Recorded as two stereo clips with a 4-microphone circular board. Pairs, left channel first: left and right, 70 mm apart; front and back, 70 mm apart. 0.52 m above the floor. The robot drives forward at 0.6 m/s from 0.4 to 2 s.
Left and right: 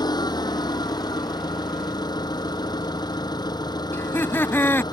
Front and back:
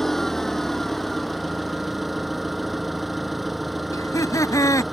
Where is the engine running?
85° left; by 4.9 s 90° left.